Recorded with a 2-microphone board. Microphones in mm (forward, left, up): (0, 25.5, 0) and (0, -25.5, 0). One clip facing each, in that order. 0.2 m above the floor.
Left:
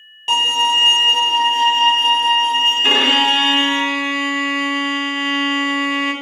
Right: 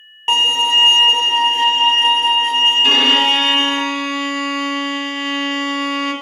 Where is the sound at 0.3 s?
35° right (ahead or behind), 0.6 m.